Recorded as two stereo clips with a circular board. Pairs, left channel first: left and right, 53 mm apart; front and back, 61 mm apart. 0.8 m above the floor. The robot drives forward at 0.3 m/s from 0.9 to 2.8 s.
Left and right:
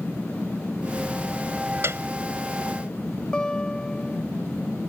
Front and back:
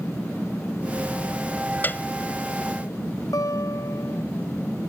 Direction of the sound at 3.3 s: 15° left.